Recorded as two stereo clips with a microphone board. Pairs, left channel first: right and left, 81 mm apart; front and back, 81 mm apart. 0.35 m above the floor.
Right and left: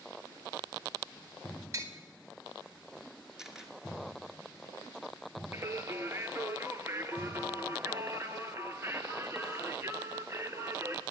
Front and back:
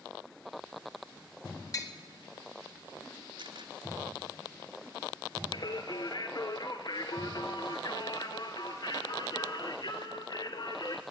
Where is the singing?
35° left, 1.4 m.